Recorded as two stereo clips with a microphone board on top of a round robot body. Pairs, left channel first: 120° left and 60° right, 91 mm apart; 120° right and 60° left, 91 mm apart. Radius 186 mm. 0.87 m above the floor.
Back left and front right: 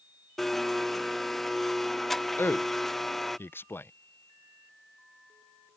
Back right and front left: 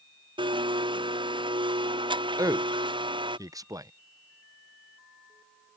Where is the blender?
30° left.